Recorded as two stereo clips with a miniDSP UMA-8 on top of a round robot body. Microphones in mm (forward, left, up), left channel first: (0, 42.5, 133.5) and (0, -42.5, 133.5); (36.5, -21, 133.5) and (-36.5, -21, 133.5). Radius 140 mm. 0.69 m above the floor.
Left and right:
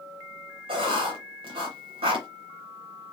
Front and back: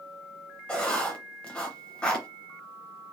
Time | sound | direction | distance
0.7 | writing | 75° right | 0.9 m